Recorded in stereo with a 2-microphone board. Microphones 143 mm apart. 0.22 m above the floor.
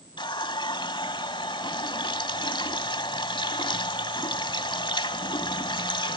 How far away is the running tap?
About 1.0 m.